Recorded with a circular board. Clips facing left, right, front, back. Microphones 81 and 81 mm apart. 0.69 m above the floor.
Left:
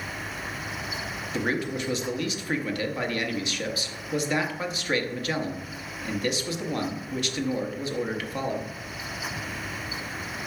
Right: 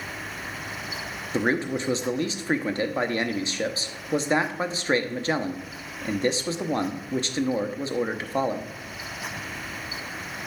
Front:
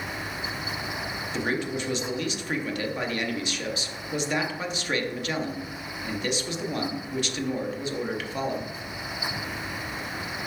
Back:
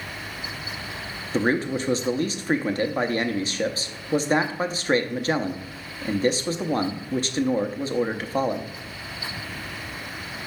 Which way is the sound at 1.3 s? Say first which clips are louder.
Right 4 dB, back 6 dB; 140° right.